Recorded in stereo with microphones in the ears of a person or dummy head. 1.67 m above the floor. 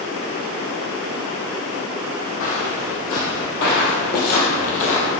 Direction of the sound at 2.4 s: 45° left (ahead or behind).